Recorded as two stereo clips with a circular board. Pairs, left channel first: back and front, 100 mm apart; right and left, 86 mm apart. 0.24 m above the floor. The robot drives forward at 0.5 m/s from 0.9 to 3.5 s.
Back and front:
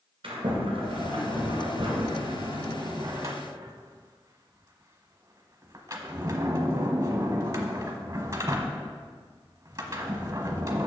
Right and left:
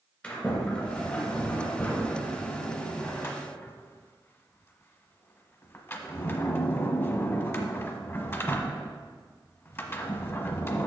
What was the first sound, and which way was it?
A sliding door, 20° right.